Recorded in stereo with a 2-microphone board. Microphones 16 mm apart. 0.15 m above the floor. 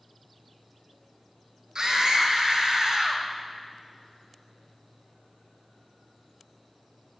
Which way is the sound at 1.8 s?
45° right (ahead or behind).